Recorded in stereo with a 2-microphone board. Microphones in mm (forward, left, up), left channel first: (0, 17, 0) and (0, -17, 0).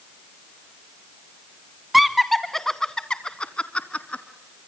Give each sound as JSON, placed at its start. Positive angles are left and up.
{"t": 1.9, "sound": "laughter", "side_deg": -5, "distance_m": 1.3}